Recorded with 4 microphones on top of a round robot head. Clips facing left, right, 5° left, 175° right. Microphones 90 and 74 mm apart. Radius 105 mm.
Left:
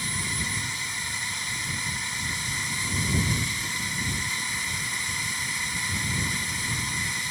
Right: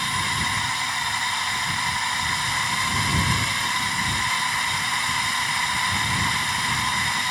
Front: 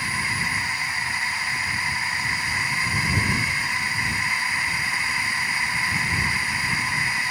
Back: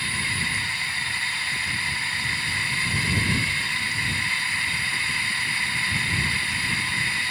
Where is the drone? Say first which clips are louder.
Right 8 dB, front 2 dB; 70° right.